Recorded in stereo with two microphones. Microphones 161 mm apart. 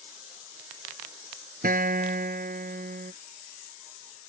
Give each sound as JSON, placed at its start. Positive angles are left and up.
{"t": 1.6, "sound": "a guitar", "side_deg": -65}